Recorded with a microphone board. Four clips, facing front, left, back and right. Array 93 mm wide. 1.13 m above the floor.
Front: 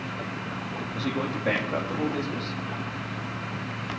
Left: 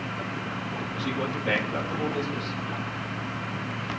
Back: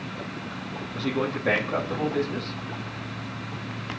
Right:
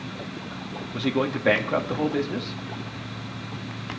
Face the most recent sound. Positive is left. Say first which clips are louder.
# right 7 dB, back 3 dB
turn(degrees=-90)